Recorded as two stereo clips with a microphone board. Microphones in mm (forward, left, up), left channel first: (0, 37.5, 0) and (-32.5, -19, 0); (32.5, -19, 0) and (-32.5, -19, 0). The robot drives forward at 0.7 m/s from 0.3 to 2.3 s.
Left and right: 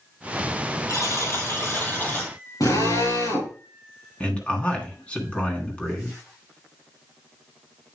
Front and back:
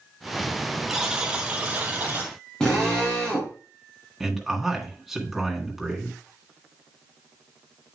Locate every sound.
0.9 s a buzzer: 95° left, 1.8 m; by 2.3 s 125° left, 2 m
2.6 s a drill: 80° left, 6 m
4.2 s a man speaking: 100° left, 1.8 m